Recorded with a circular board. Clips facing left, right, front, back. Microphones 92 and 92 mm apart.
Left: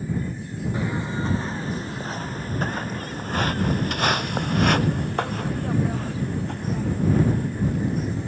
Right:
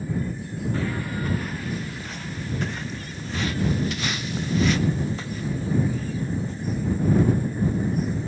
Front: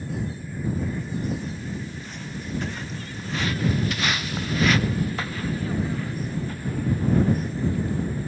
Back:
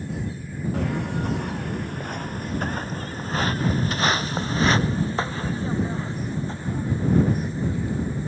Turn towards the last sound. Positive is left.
turn(degrees=110)